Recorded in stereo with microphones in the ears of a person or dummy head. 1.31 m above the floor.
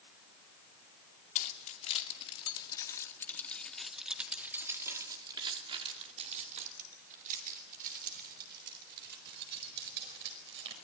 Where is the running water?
No running water in this recording.